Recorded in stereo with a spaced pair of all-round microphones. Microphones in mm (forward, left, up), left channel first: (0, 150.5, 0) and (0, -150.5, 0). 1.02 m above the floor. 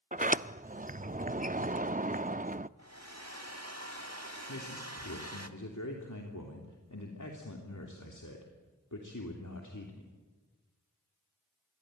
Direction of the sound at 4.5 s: 65° left (ahead or behind).